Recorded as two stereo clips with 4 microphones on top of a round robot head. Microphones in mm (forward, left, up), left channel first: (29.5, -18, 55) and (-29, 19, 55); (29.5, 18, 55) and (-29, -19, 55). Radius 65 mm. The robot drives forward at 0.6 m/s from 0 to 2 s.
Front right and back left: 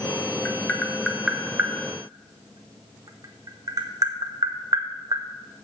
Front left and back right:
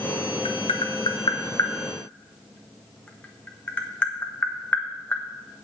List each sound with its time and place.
0.5 s tapping: 35° left, 1.1 m; by 5.2 s 105° left, 0.8 m